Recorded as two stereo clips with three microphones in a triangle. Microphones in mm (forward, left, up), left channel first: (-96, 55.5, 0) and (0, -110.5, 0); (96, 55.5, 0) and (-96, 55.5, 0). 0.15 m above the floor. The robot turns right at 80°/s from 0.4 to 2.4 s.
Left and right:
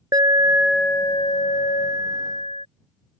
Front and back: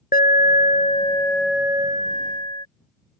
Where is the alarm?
5° left; by 2.7 s 165° left.